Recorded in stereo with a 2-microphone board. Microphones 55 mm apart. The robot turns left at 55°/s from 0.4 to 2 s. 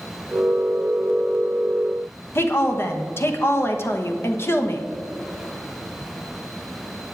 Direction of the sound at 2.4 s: 45° left (ahead or behind).